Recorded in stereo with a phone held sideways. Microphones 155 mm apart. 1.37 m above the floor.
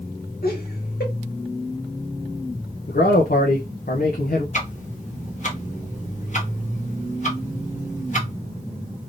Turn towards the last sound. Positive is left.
turn(degrees=50)  # may be behind; listen again after turning